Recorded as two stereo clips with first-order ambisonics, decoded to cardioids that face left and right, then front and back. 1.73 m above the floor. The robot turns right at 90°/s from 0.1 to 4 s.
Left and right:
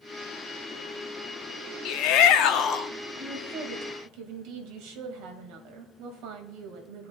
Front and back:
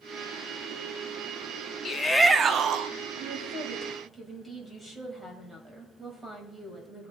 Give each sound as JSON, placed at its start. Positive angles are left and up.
{"t": 1.9, "sound": "a shout", "azimuth_deg": 60, "distance_m": 0.6}
{"t": 3.2, "sound": "a woman speaking", "azimuth_deg": -175, "distance_m": 2.5}